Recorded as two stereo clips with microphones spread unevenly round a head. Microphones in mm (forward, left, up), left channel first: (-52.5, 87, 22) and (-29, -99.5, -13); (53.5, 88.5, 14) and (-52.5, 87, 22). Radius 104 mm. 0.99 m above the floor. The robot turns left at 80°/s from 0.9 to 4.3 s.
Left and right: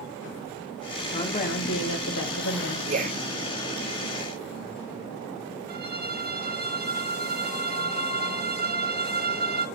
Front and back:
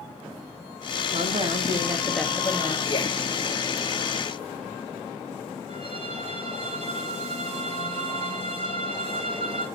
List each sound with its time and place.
1.1 s a woman speaking: 170° left, 1.9 m; by 2.8 s 35° left, 1.9 m
2.9 s a man speaking: 40° right, 1.0 m; by 3.2 s 65° right, 1.0 m
5.7 s a violin: 120° right, 1.2 m